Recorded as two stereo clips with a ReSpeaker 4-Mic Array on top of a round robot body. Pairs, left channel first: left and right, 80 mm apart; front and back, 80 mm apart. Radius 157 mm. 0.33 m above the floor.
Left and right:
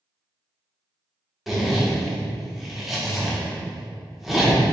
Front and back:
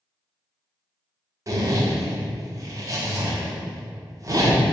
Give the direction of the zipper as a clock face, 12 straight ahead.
6 o'clock.